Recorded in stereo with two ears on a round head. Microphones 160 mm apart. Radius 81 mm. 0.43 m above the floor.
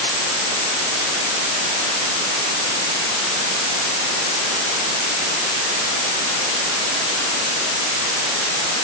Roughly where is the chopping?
I don't hear chopping.